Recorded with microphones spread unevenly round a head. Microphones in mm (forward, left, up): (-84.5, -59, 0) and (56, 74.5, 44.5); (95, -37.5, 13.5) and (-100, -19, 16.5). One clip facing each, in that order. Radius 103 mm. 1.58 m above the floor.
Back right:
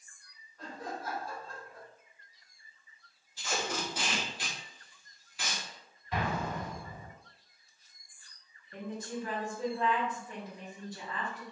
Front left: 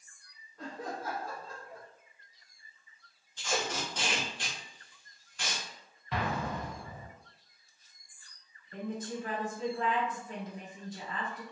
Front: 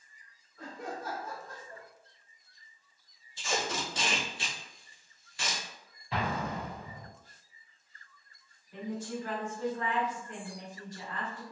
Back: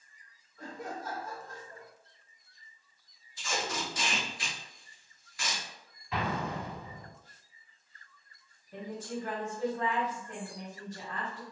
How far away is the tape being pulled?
About 0.8 m.